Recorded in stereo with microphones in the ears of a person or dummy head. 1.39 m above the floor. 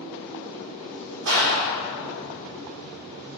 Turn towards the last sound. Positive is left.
turn(degrees=-65)  # may be behind; listen again after turning